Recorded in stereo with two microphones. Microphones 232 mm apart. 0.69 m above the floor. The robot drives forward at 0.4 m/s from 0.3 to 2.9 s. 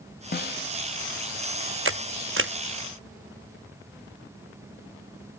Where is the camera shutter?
60° right (ahead or behind), 0.6 m.